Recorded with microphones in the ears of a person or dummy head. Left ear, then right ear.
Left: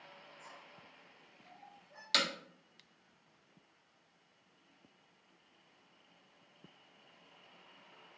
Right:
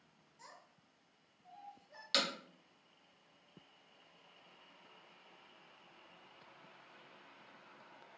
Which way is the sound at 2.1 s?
5° left (ahead or behind).